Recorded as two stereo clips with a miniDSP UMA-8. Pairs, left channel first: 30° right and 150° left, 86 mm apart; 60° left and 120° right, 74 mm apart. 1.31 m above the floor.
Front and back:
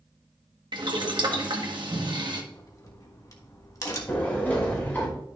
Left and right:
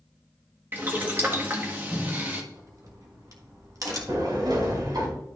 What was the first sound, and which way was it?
Boiling, straight behind.